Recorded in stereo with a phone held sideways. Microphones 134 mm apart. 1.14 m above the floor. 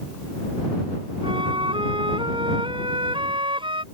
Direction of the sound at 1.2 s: 40° right (ahead or behind).